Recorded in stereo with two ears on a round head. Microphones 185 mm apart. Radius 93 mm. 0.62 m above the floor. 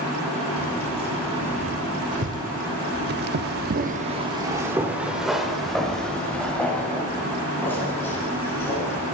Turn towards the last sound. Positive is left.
turn(degrees=10)  # may be behind; listen again after turning